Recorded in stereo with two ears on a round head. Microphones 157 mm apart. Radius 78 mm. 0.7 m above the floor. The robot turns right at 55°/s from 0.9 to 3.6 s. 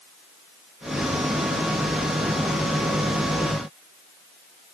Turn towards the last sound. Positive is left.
No sound to turn to.